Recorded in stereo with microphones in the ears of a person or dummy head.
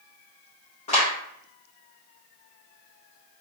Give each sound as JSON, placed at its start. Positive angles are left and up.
{"t": 0.9, "sound": "a clap", "side_deg": 45, "distance_m": 1.3}